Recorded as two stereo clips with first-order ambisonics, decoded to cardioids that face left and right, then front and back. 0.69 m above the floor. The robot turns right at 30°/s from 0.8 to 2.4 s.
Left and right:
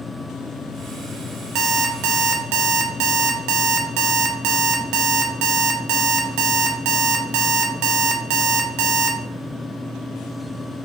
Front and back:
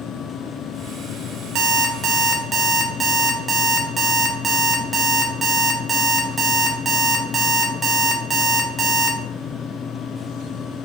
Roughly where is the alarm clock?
Behind right.